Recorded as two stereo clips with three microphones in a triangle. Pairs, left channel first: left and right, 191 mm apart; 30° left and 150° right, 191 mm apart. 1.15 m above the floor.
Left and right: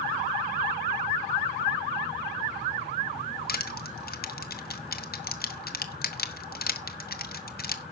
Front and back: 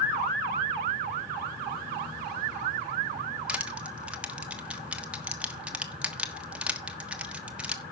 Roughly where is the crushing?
Behind left.